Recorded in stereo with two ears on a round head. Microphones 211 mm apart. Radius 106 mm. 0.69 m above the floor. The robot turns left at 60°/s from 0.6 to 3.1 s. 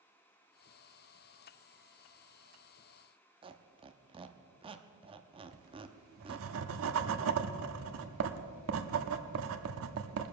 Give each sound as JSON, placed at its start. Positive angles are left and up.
{"t": 3.4, "sound": "a squeak", "side_deg": -25, "distance_m": 0.7}
{"t": 5.5, "sound": "writing", "side_deg": -65, "distance_m": 0.8}